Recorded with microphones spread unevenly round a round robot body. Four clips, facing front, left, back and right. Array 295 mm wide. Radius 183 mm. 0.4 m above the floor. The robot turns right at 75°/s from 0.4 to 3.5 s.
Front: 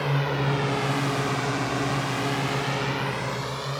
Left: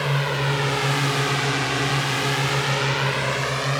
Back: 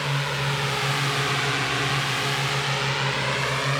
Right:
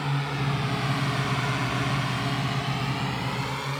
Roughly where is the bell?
I don't hear a bell.